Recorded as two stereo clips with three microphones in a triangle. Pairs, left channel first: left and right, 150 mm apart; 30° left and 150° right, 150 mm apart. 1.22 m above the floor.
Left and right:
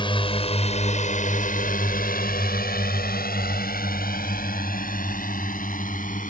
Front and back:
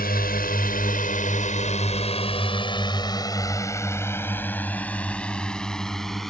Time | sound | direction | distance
0.0 | a drone | 35° left | ?